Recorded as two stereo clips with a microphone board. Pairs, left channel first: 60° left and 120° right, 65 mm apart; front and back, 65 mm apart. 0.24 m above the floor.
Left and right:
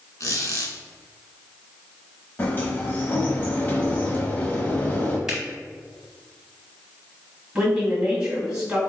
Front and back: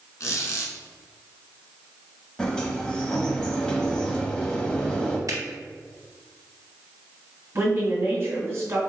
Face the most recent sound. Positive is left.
turn(degrees=170)